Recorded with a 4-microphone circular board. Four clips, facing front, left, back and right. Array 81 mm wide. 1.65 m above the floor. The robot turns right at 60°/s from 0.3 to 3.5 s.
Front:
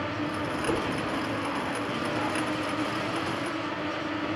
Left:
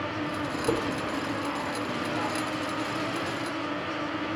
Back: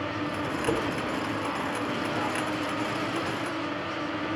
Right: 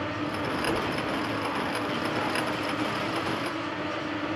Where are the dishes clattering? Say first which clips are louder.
Left 4 dB, back 1 dB; 120° left, 4.5 m; by 0.8 s 130° left, 4.5 m.